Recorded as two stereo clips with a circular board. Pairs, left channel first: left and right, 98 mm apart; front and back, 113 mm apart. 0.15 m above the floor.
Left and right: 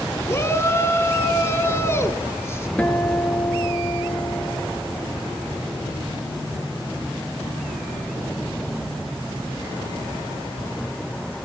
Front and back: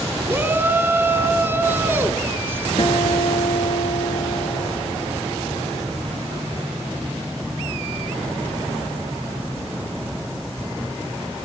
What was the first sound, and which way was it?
A shout, 125° left.